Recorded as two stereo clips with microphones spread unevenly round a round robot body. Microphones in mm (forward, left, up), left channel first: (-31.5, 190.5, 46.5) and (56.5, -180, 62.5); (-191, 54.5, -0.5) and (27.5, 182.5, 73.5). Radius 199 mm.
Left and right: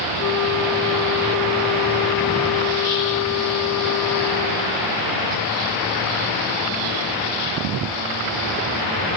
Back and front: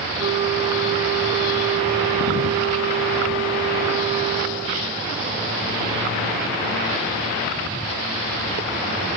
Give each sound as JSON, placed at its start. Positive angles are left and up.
{"t": 0.2, "sound": "a flute", "azimuth_deg": 100, "distance_m": 1.1}